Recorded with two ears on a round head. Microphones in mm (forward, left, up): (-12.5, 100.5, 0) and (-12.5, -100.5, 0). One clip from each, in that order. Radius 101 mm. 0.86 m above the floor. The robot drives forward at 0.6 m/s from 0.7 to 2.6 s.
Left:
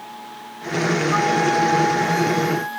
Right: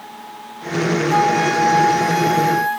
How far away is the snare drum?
No snare drum in this recording.